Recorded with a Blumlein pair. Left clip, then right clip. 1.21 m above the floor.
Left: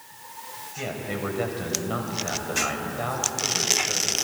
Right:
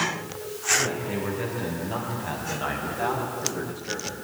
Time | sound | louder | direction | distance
0.8 | a man speaking | right 4 dB | 35° left | 6 m